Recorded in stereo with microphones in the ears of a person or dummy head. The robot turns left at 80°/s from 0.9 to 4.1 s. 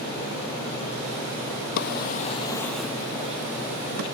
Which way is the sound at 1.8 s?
60° left (ahead or behind).